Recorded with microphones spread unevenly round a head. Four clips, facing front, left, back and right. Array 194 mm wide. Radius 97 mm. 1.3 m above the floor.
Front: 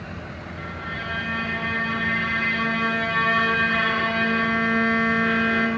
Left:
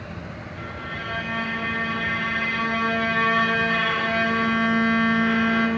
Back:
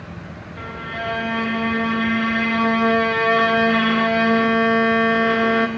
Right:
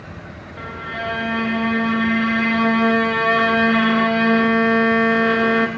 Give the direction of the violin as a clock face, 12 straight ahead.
4 o'clock.